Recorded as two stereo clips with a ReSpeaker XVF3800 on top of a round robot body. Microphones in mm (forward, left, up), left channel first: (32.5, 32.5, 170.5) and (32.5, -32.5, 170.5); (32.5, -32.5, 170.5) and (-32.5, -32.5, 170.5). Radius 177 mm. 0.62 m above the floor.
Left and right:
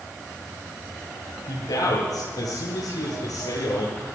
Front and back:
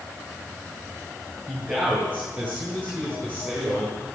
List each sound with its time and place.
1.5 s a man speaking: 110° left, 10 m